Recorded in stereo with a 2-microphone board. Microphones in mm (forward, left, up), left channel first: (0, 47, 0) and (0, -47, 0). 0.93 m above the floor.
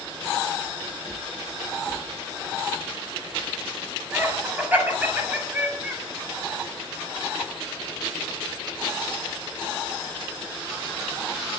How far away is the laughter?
About 5.5 m.